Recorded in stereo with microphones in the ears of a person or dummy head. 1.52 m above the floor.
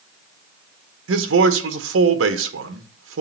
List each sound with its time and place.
1.1 s a man speaking: 70° right (ahead or behind), 1.4 m